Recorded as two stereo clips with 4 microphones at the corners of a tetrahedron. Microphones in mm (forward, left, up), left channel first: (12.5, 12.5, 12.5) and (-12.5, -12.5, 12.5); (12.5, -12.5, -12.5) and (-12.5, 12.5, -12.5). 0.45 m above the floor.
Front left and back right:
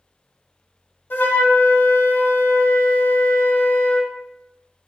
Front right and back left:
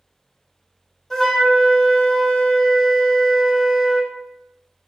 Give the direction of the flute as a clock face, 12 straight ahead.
11 o'clock.